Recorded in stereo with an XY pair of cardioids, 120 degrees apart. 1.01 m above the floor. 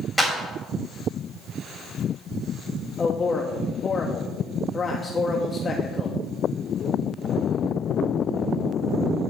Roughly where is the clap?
Ahead.